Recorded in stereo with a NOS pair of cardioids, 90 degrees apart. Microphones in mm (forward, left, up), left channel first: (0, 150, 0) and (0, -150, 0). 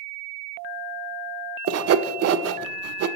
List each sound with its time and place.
1.7 s sawing: 55° right, 0.5 m